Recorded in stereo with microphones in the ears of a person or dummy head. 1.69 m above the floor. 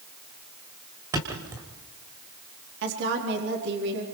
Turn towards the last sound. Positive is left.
turn(degrees=-60)  # may be behind; listen again after turning